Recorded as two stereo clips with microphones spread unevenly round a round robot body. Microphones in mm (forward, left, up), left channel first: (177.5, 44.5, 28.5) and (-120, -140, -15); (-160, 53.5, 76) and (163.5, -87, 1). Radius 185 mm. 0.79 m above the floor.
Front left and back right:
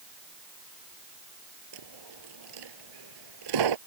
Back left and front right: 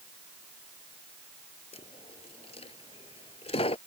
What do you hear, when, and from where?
1.7 s a dropped coin: 130° right